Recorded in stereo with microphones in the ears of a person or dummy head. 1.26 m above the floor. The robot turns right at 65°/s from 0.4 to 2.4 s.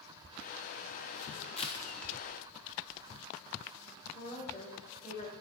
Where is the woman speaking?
50° left (ahead or behind), 5.5 m.